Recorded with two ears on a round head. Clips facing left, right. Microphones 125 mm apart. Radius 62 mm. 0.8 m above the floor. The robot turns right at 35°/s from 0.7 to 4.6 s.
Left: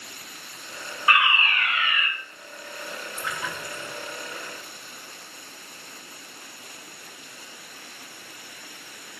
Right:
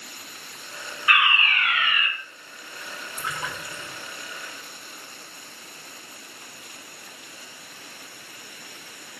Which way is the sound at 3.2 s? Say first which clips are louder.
Right 1 dB; 20° right (ahead or behind).